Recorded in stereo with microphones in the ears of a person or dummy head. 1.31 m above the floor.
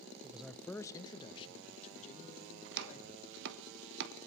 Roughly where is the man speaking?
Centre.